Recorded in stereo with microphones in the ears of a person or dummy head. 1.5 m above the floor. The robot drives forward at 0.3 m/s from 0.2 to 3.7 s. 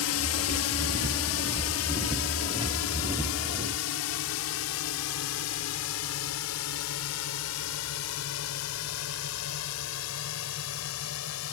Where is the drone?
70° left (ahead or behind); by 11.5 s 75° left (ahead or behind).